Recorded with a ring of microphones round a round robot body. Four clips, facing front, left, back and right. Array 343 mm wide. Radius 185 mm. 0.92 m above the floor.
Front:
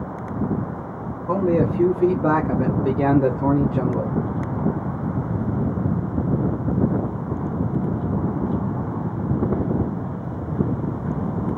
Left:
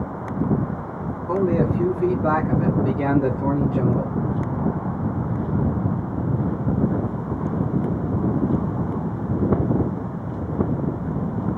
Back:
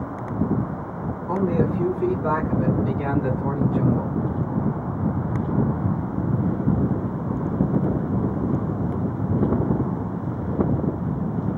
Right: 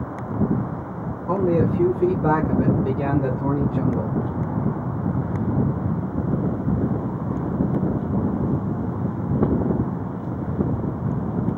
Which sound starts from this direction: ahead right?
A man speaking, at 1.3 s.